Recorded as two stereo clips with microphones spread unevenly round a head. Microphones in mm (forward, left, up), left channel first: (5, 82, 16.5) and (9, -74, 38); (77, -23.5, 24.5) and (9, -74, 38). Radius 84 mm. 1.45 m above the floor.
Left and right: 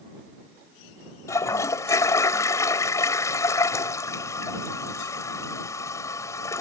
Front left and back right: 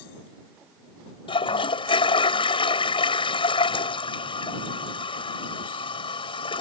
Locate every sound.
1.3 s a toilet flushing: 15° left